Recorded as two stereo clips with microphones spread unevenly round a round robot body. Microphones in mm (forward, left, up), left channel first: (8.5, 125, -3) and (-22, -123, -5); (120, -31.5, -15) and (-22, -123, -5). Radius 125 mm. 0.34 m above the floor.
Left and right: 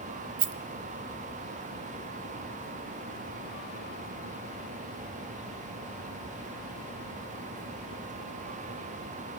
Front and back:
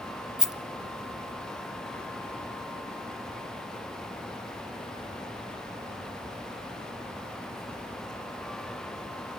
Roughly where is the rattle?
Ahead right.